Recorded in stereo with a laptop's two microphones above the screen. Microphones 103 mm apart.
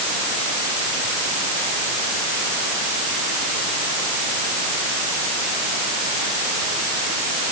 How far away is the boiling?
I don't hear boiling.